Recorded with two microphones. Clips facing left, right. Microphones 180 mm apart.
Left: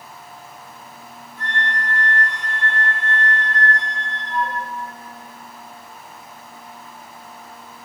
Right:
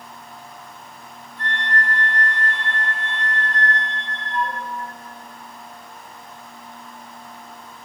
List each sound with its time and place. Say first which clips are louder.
1.4 s a flute: right 1 dB; 45° left (ahead or behind), 2.5 m